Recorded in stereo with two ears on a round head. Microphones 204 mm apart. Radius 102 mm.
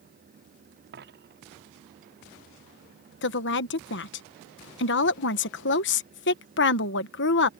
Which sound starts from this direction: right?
A dropped coin, at 0.9 s.